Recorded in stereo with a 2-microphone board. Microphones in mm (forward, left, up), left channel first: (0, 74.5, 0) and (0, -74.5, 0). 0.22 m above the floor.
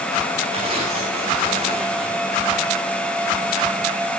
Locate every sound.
0.5 s tearing paper: 40° right (ahead or behind), 5.5 m